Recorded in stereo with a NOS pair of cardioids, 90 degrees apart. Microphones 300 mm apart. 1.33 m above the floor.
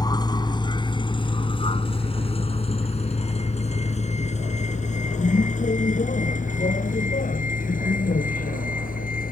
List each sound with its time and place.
0.0 s a vehicle: 10° left; by 9.3 s 25° left